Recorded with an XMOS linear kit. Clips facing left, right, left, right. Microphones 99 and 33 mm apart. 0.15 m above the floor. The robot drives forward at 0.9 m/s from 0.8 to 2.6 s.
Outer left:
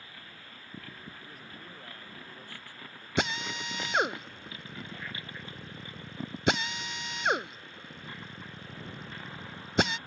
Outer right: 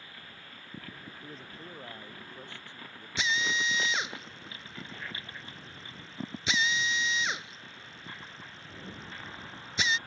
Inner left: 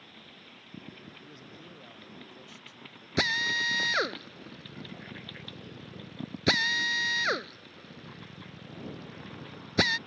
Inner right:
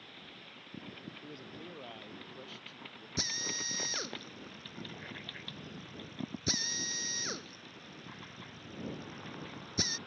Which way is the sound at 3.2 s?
55° left (ahead or behind).